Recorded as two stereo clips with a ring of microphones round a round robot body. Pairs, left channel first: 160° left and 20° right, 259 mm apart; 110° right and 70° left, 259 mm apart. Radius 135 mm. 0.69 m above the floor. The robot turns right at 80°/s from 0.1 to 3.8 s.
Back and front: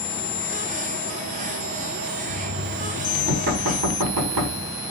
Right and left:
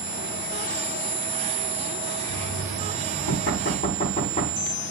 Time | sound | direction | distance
2.3 | knocking | 170° right | 5 m